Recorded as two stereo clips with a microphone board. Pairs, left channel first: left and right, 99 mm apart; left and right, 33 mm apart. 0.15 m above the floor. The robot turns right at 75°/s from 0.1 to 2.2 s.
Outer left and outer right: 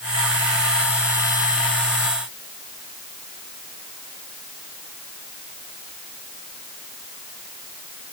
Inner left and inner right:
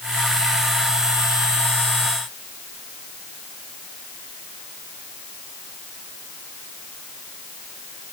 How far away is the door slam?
I don't hear a door slam.